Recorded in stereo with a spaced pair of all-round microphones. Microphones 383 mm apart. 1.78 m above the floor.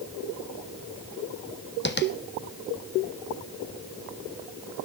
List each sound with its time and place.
1.9 s tapping: 25° left (ahead or behind), 1.2 m